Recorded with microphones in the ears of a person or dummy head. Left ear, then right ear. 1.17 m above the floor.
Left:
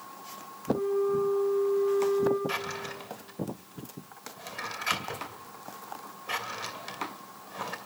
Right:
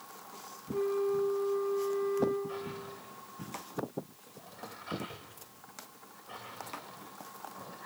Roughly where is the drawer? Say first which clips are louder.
Left 7 dB; left.